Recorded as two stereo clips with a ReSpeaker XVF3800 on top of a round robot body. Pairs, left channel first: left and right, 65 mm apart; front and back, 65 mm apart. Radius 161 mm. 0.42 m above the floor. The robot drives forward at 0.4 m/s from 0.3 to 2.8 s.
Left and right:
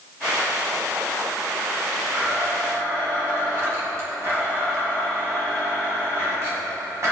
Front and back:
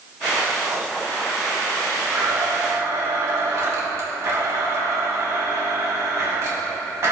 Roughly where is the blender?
Behind right.